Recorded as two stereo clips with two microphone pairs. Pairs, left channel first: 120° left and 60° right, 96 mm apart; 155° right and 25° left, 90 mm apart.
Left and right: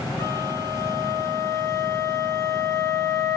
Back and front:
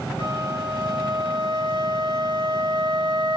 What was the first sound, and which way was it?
A flute, 175° left.